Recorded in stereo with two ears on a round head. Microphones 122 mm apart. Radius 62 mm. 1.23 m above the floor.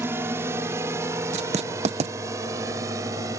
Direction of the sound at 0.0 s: 15° right (ahead or behind).